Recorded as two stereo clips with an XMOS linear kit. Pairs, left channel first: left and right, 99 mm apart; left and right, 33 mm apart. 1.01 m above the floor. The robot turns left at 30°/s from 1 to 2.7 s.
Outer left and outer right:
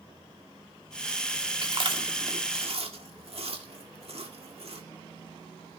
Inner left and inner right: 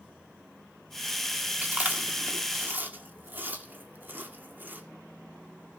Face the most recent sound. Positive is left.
turn(degrees=-85)